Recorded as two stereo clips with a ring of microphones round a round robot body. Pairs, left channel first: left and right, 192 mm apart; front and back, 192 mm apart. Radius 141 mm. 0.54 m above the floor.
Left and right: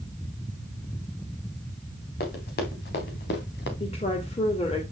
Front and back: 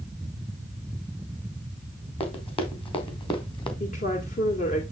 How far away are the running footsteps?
About 3.5 m.